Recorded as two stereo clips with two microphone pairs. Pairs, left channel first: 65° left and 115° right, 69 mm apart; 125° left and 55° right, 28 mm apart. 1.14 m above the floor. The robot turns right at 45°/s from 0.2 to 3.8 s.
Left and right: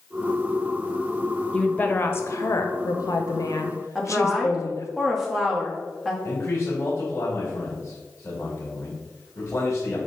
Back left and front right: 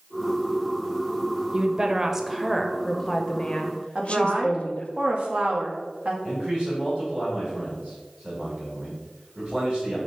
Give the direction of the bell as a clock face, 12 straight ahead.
I don't hear a bell.